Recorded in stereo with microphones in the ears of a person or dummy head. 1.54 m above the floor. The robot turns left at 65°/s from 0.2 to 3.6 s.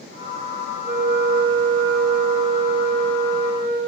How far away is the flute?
About 2.5 m.